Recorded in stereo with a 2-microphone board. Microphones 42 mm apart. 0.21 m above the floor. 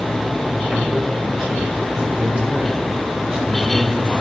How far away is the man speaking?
About 1.9 m.